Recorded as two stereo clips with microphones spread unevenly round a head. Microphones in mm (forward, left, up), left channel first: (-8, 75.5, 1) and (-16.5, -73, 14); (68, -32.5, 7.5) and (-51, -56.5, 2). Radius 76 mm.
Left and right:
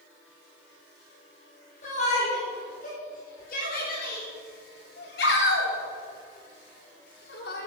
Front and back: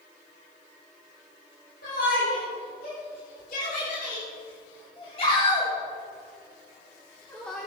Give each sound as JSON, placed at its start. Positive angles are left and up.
{"t": 1.8, "sound": "a shout", "azimuth_deg": 40, "distance_m": 4.5}